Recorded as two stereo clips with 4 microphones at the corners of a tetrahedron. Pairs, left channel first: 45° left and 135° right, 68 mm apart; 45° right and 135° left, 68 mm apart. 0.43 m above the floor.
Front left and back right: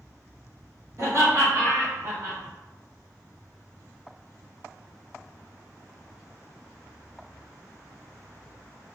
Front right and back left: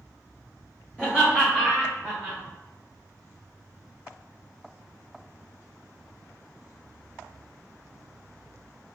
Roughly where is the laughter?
Behind.